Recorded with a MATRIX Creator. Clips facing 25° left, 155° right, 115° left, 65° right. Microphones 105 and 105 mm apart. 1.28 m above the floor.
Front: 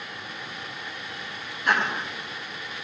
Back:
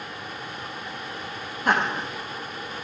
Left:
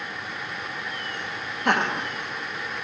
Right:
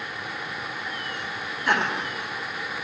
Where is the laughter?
150° left, 2.5 m.